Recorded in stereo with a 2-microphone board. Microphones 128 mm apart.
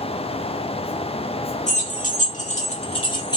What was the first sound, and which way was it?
Keys jangling, 70° left (ahead or behind).